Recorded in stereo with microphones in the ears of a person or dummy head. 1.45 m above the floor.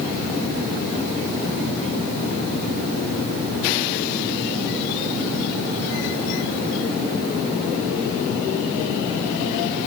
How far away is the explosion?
No explosion in this recording.